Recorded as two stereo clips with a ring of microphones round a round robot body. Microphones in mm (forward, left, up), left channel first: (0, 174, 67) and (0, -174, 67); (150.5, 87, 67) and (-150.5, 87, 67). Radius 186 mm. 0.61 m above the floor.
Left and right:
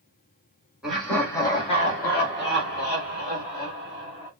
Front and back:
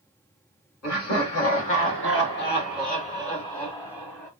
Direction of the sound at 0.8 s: Straight ahead.